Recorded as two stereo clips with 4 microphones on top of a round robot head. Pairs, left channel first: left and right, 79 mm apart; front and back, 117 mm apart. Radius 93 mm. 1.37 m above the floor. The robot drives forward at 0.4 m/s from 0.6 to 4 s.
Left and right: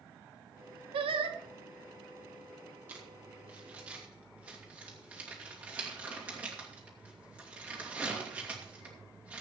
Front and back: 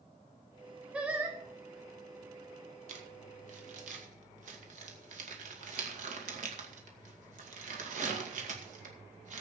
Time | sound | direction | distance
0.9 | singing | 95° right | 1.3 m
2.9 | crumpling | 160° right | 1.8 m